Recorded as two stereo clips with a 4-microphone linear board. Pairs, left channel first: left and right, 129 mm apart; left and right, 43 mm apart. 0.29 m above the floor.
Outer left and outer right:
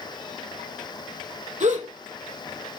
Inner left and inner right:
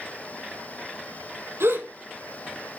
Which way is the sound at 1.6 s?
80° right.